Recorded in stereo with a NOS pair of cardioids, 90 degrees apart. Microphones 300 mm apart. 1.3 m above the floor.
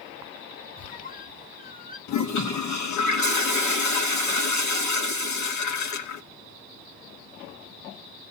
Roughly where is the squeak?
Ahead left.